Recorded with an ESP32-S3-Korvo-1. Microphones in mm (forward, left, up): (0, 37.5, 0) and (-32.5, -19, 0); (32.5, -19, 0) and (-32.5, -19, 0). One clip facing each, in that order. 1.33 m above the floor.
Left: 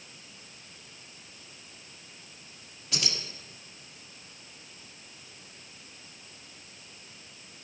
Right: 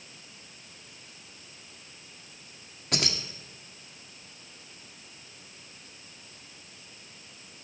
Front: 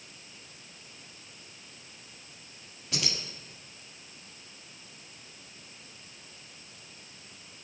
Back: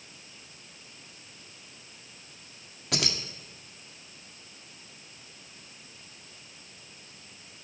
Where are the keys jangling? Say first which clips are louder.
Right 4 dB, back 4 dB; 160° right, 1.7 m.